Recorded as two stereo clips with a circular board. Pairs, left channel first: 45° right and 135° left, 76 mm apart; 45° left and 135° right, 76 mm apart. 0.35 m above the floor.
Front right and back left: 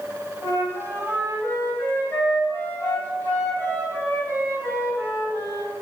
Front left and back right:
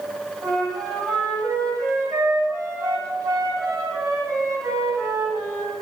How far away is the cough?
No cough in this recording.